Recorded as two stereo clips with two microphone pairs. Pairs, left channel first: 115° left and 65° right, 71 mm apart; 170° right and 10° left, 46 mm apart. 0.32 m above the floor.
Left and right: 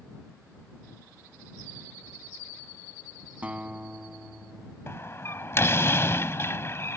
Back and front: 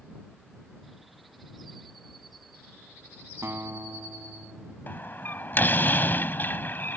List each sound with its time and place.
3.4 s a guitar: 5° left
4.9 s a door slam: 160° left